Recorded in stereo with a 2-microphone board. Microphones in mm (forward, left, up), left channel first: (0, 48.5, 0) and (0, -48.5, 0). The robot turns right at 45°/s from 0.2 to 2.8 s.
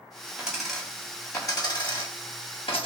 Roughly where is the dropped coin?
Ahead.